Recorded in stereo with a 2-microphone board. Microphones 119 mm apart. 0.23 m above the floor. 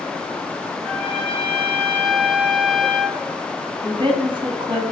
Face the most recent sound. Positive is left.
turn(degrees=-45)  # may be behind; listen again after turning